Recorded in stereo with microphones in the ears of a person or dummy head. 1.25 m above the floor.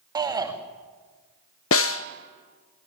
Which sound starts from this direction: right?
A shout, at 0.1 s.